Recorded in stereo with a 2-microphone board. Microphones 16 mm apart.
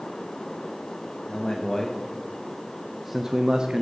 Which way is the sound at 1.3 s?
40° left (ahead or behind).